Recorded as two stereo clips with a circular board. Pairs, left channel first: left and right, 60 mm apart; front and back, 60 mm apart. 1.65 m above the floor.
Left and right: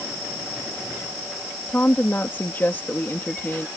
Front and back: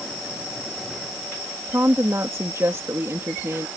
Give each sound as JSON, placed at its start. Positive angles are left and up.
{"t": 1.7, "sound": "a woman speaking", "azimuth_deg": 145}